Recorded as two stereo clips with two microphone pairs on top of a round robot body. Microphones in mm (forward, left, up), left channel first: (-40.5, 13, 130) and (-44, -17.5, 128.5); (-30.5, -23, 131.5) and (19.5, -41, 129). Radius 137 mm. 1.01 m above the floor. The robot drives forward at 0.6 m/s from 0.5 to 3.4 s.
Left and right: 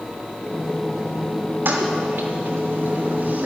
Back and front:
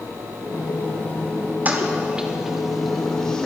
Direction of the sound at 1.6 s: 75° right.